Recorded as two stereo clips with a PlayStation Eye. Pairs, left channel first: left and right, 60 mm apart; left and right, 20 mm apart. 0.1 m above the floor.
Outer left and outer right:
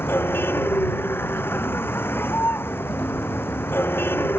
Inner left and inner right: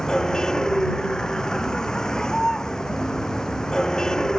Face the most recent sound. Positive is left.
turn(degrees=35)  # may be behind; listen again after turning